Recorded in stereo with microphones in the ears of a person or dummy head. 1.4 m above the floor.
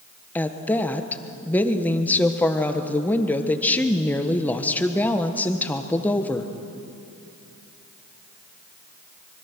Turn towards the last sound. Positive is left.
turn(degrees=5)  # may be behind; listen again after turning